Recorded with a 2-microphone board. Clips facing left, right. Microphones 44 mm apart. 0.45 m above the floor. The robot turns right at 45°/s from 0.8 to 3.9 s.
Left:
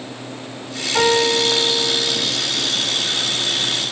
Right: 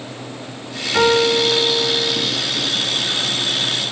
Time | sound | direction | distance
0.9 | a piano | 70° right | 2 m